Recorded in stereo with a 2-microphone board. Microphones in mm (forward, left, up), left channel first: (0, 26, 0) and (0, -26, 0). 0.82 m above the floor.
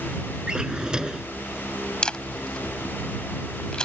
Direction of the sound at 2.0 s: 15° left (ahead or behind).